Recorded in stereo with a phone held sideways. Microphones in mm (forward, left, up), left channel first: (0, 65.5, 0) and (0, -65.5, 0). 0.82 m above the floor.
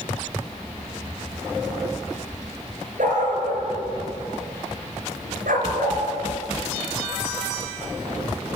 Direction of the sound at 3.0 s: 80° right.